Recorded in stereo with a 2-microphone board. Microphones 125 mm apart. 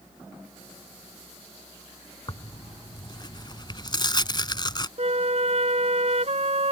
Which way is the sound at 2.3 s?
40° left (ahead or behind).